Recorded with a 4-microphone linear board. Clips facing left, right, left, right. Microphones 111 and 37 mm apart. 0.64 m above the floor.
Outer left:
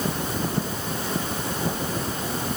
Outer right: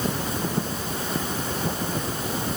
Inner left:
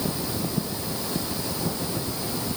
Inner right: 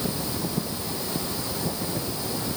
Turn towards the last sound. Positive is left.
No sound to turn to.